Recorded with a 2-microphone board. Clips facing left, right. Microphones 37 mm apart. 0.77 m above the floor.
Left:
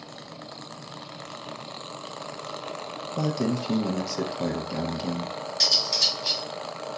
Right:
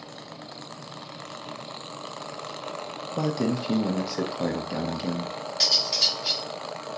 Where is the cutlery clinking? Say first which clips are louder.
Even; 15° right (ahead or behind), 1.6 m.